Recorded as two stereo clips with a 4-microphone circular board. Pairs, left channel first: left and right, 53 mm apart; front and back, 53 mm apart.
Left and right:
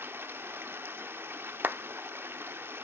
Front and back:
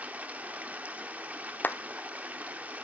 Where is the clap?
45° right, 0.7 m.